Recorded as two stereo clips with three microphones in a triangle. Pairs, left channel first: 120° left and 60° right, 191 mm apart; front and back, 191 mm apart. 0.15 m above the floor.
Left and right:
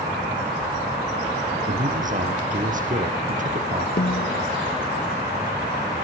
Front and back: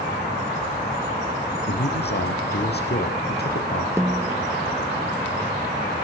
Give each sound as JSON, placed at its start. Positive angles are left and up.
{"t": 1.7, "sound": "a man speaking", "azimuth_deg": -20, "distance_m": 3.5}
{"t": 4.0, "sound": "a snare drum", "azimuth_deg": 105, "distance_m": 0.6}